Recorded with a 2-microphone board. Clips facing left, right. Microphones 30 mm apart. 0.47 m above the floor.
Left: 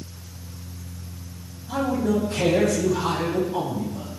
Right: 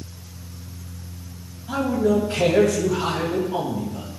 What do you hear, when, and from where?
1.7 s a man speaking: 70° right (ahead or behind), 3 m